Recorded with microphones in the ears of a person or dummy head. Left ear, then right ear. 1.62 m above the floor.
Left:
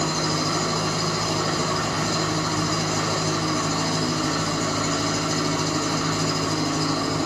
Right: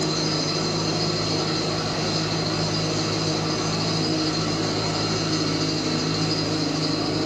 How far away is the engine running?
About 5.5 m.